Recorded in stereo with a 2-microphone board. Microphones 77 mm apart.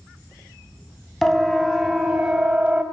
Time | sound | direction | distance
1.2 | a siren | 5° left (ahead or behind) | 3 m